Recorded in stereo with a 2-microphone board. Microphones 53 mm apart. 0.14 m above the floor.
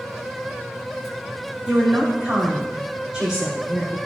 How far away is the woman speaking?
About 5.5 m.